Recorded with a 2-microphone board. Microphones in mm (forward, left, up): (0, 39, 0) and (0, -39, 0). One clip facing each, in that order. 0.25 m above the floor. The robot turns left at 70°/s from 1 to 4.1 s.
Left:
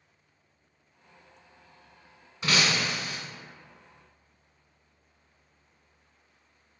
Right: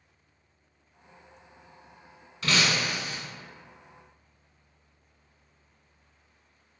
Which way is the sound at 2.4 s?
20° left.